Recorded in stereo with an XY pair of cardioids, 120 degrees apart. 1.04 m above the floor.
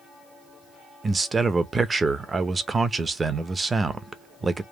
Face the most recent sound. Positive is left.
turn(degrees=-25)